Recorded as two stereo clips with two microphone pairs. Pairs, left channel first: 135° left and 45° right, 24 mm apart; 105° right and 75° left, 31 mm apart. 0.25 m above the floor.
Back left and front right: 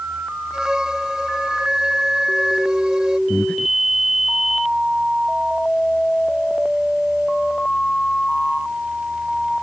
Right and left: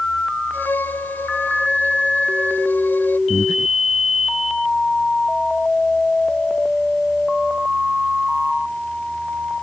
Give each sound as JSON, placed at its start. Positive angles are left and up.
{"t": 0.5, "sound": "a violin", "azimuth_deg": -100}
{"t": 3.3, "sound": "breathing", "azimuth_deg": 170}